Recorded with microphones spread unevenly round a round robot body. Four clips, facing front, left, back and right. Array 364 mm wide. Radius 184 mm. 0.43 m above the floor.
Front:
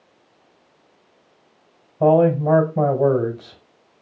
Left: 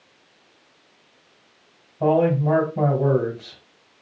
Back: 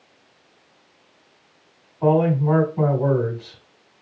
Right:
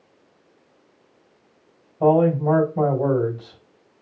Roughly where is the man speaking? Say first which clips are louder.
Right 2 dB, front 3 dB; ahead.